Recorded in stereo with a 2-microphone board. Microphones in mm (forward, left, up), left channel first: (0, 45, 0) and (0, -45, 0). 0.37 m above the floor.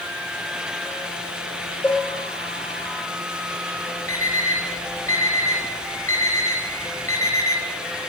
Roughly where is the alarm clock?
Left.